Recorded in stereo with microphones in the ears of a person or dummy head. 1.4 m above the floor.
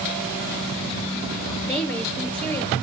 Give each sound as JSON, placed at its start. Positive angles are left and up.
{"t": 1.6, "sound": "a woman speaking", "side_deg": 10, "distance_m": 4.0}